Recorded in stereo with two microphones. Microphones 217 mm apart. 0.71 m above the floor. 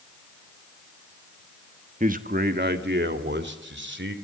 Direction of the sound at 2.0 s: 35° right (ahead or behind).